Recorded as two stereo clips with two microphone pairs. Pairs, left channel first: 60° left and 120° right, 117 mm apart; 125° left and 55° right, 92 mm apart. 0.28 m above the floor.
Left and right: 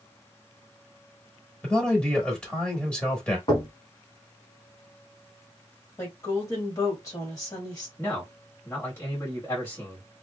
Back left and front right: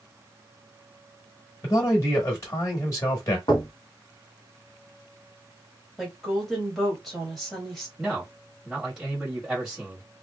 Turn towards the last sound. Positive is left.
turn(degrees=20)